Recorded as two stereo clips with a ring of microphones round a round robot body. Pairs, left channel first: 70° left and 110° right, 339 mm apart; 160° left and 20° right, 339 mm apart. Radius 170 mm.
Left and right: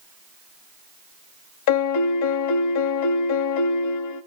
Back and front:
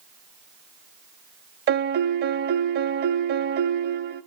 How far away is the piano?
About 0.5 m.